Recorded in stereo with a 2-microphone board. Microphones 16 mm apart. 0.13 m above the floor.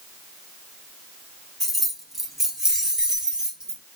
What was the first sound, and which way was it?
Keys jangling, centre (ahead or behind).